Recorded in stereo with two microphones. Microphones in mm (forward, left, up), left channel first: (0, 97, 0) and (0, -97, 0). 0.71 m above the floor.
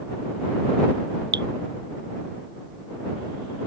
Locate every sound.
1.3 s dripping: 70° right (ahead or behind)